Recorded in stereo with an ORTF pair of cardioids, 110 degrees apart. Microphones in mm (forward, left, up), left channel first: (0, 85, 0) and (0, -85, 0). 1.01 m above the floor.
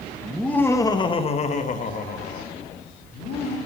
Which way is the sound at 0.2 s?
5° right.